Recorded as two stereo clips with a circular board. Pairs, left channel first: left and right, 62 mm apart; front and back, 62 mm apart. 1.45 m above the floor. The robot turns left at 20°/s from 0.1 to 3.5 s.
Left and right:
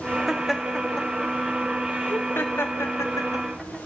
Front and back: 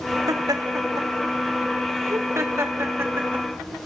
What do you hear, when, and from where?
0.3 s laughter: 175° right, 3 m; by 3.5 s 120° left, 3 m